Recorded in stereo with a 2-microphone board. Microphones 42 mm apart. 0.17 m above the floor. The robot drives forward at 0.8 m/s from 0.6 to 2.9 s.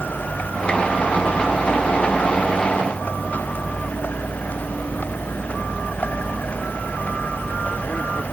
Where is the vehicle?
45° left (ahead or behind); by 8.3 s 40° left (ahead or behind).